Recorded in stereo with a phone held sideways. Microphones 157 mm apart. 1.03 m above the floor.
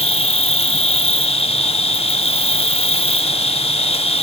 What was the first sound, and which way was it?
An insect, 40° left (ahead or behind).